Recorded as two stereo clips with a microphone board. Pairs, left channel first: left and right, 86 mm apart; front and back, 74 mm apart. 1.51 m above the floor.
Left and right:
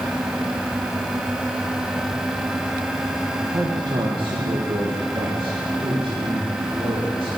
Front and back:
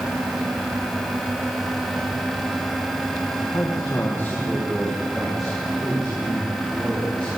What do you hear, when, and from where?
3.4 s a man speaking: 30° right, 1.5 m; by 7.3 s 105° right, 5.5 m